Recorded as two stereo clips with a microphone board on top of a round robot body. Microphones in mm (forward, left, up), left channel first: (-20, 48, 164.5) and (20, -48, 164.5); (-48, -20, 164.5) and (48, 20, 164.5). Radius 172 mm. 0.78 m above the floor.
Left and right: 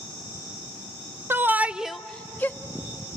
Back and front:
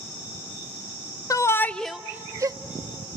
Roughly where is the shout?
Behind right.